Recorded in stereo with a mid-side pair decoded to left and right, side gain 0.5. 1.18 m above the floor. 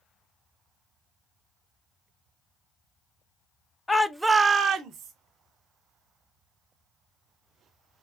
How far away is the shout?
About 0.5 m.